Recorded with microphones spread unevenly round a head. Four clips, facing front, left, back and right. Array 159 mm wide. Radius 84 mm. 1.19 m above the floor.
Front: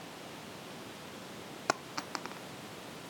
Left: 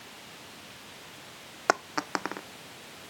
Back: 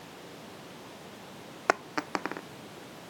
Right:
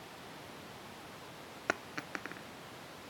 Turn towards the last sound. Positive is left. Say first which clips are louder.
# left 11 dB, back 7 dB
turn(degrees=140)